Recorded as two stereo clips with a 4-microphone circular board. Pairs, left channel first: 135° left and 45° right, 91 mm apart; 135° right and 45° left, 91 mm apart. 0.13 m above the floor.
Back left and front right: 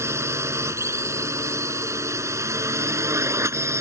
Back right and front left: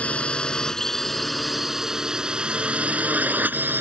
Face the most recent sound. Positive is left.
turn(degrees=-10)